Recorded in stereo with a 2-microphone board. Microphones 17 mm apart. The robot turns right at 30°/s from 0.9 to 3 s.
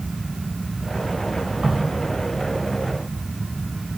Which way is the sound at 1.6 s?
50° right (ahead or behind).